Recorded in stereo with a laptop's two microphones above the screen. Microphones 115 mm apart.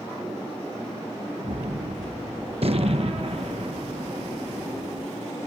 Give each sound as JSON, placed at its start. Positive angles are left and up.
{"t": 1.4, "sound": "a gunshot", "side_deg": -55}